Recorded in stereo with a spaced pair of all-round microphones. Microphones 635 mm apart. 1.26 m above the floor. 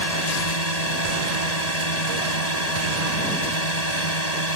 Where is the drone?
80° left.